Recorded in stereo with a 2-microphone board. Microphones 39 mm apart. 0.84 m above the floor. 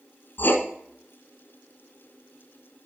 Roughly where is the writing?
Left.